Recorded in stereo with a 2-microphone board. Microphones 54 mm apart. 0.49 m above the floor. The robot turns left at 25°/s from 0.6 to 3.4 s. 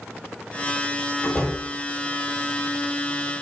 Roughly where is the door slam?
Centre.